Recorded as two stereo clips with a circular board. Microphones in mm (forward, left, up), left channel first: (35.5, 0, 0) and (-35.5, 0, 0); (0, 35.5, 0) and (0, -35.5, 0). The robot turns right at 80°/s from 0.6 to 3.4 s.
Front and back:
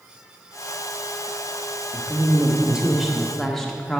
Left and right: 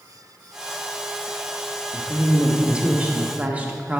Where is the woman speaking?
165° left, 0.7 m; by 4.0 s 80° right, 0.7 m.